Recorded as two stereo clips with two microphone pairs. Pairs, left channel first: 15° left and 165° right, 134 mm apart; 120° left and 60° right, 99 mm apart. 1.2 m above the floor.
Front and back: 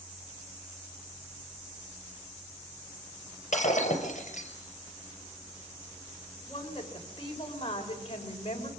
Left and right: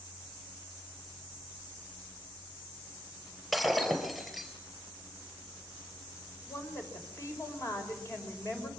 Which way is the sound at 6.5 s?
60° left.